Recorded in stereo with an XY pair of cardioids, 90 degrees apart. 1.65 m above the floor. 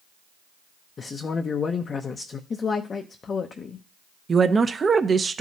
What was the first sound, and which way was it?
A man speaking, 50° left.